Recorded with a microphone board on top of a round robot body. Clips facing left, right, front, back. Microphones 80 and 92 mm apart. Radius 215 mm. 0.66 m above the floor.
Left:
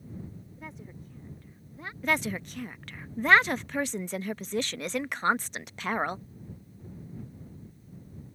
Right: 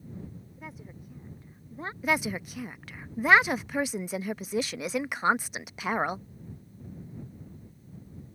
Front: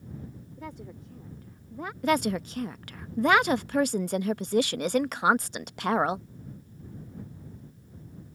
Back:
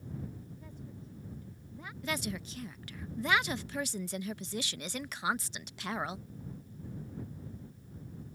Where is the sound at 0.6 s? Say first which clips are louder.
Even, front 7 dB; 5° right; by 1.9 s 35° right.